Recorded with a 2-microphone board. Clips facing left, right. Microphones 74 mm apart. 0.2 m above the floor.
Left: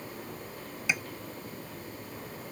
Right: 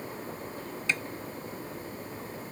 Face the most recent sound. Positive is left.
turn(degrees=10)  # may be behind; listen again after turning